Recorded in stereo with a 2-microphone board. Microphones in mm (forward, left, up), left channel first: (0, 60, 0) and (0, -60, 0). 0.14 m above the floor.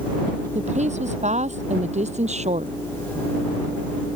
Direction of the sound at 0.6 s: 75° right (ahead or behind).